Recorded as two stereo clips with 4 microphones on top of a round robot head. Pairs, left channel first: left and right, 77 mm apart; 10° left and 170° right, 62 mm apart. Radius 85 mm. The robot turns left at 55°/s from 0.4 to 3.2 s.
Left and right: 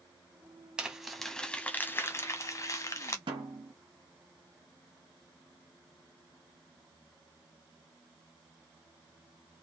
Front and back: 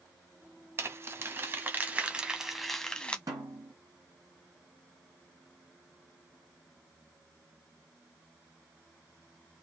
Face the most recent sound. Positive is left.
turn(degrees=-125)